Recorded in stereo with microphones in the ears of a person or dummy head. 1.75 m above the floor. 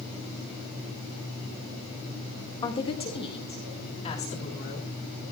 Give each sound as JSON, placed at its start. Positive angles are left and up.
{"t": 2.6, "sound": "a woman speaking", "side_deg": 25, "distance_m": 3.5}